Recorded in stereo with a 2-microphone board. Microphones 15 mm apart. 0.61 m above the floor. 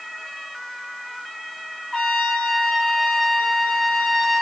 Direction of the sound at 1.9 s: 25° left (ahead or behind).